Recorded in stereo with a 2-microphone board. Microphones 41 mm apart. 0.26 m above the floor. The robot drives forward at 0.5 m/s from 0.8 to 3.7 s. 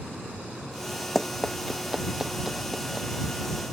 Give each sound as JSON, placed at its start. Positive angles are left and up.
{"t": 1.1, "sound": "running footsteps", "side_deg": 5}